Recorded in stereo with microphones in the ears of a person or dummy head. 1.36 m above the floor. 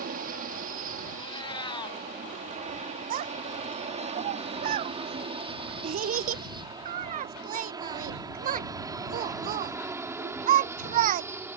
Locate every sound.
0.0 s an aircraft: 35° right (ahead or behind); by 11.6 s centre (ahead or behind)
1.2 s a cat meowing: 35° left (ahead or behind)
3.1 s a child speaking: 35° right (ahead or behind)